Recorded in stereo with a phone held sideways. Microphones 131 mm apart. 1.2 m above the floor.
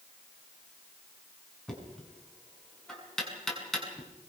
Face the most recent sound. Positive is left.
turn(degrees=5)  # may be behind; listen again after turning